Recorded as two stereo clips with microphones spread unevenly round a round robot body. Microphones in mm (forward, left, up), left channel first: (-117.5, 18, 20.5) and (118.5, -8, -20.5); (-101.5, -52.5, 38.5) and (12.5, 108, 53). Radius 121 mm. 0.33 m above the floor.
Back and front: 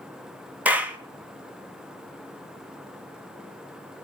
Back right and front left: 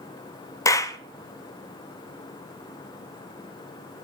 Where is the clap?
70° right, 0.8 m.